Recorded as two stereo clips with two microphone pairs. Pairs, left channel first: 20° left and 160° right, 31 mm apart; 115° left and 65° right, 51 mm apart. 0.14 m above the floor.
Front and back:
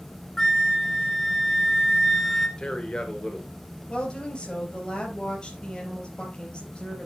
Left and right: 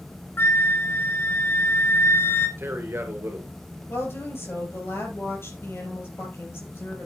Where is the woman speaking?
75° left, 4.5 m.